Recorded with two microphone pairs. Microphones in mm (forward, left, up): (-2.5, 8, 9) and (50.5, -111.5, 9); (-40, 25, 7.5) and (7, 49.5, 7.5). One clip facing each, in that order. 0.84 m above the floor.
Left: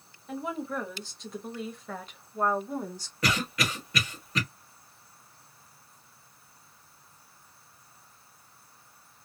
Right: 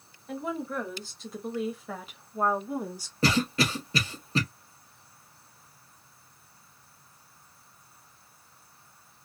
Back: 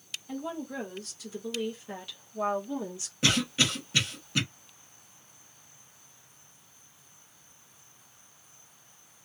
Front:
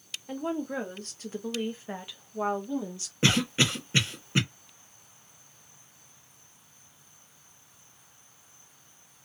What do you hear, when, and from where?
0.3 s a woman speaking: 25° left, 1.4 m; by 3.1 s 125° right, 0.8 m
3.2 s a cough: 20° right, 1.1 m